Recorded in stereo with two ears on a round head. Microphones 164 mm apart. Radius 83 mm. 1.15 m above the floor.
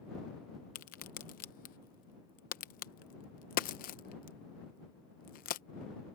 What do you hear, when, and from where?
0.8 s a crack: 50° left (ahead or behind)